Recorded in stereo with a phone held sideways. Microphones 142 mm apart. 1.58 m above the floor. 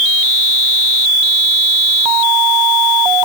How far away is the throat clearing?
I don't hear throat clearing.